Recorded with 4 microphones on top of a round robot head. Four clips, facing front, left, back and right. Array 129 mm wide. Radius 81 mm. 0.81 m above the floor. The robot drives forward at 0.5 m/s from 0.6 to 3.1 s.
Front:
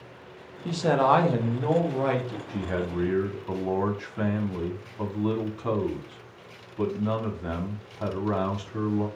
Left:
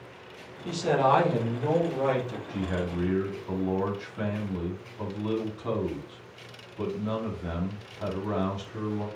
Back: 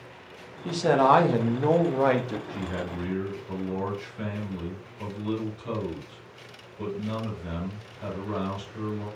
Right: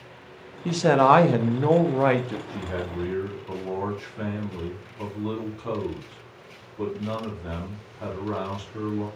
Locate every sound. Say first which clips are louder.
0.7 s a man speaking: right 6 dB, back 1 dB; 85° right, 1.4 m; by 2.4 s 125° right, 1.6 m
2.5 s a man speaking: left 1 dB, front 3 dB; 5° left, 3 m